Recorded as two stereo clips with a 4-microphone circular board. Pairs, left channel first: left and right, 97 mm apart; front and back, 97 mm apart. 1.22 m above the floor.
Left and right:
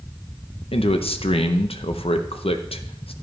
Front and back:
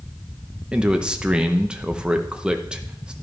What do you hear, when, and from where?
0.7 s a man speaking: 100° left, 0.7 m